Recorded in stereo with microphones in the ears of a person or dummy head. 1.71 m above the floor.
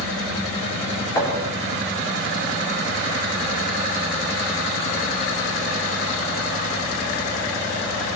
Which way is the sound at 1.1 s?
20° left (ahead or behind).